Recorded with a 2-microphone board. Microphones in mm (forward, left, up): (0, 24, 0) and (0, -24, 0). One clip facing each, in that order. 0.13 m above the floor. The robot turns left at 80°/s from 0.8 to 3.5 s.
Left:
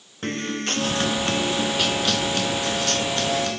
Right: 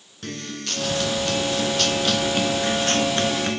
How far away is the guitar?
About 0.6 m.